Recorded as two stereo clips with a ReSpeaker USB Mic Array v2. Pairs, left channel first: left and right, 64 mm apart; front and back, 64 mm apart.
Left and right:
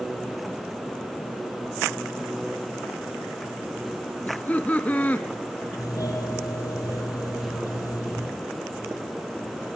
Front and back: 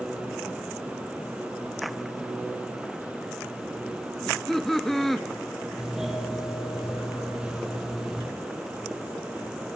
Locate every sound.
4.3 s laughter: 80° left, 1.2 m
5.8 s a doorbell: 95° left, 4.5 m